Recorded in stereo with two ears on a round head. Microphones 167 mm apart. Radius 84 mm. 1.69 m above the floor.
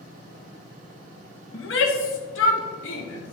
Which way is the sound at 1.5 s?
70° left (ahead or behind).